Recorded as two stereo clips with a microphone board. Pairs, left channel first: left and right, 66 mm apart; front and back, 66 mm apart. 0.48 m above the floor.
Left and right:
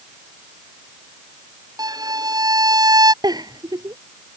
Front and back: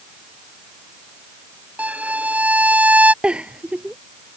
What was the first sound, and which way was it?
A violin, 110° right.